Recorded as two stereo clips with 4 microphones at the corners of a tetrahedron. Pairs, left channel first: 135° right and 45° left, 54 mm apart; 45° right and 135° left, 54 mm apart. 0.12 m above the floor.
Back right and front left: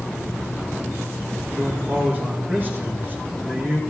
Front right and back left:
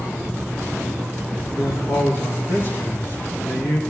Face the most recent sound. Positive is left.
turn(degrees=-5)